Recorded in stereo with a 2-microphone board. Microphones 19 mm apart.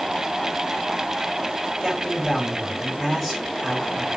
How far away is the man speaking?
About 6 m.